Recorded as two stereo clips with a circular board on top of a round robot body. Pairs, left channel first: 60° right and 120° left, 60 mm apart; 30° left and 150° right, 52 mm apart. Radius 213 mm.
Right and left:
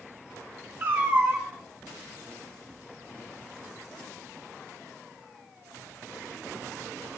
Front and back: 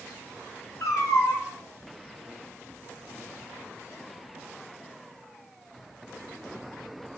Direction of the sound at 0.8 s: 60° left.